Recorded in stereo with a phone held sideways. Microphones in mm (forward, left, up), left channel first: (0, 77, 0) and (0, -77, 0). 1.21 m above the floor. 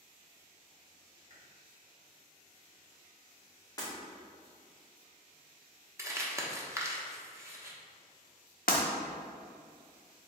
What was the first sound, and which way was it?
Chewing, 55° right (ahead or behind).